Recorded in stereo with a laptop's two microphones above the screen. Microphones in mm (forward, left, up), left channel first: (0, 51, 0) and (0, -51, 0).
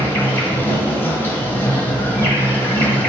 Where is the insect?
20° left (ahead or behind), 1.1 m.